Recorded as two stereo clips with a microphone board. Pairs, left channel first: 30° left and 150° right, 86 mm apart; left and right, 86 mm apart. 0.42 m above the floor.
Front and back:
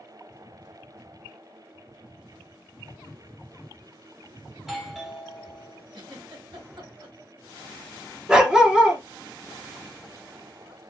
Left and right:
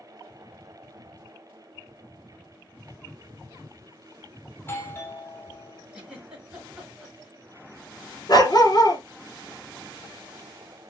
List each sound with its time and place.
4.5 s a doorbell: 125° left, 1.3 m
5.9 s a giggle: 170° right, 3 m
8.3 s a dog barking: 130° left, 1.5 m